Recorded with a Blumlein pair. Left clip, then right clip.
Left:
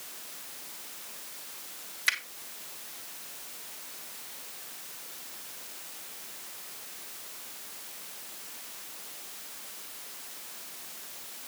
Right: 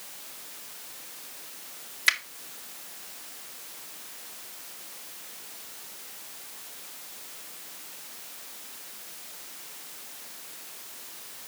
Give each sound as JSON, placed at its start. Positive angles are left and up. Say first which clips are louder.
{"t": 2.1, "sound": "a finger snap", "louder": "right 4 dB", "azimuth_deg": -15, "distance_m": 1.4}